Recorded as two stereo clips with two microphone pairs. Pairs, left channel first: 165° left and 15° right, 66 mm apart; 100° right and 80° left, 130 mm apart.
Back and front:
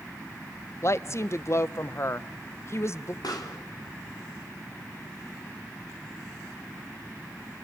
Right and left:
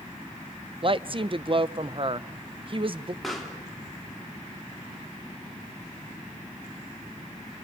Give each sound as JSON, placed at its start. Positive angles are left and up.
{"t": 0.8, "sound": "a woman speaking", "azimuth_deg": 125, "distance_m": 0.5}
{"t": 3.2, "sound": "a pop", "azimuth_deg": 170, "distance_m": 3.0}